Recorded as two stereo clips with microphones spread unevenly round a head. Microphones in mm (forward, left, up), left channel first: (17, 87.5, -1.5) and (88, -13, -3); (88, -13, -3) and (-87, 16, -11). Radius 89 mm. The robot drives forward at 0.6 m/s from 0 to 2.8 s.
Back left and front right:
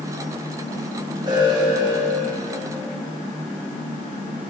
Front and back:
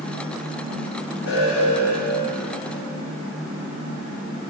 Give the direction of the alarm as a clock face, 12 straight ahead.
12 o'clock.